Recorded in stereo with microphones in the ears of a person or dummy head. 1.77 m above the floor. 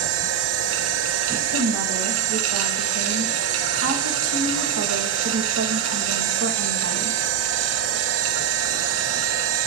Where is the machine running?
80° right, 1.9 m.